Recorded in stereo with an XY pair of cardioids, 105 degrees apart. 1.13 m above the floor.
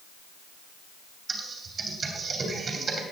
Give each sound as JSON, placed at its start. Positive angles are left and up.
{"t": 1.3, "sound": "typing on a keyboard", "azimuth_deg": -45, "distance_m": 2.5}